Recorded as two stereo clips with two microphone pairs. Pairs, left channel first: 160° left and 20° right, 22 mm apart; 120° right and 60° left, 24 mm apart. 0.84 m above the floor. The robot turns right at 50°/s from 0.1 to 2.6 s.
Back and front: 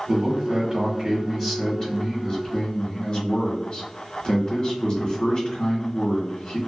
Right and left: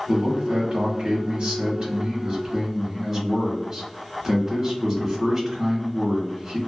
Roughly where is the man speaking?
Ahead.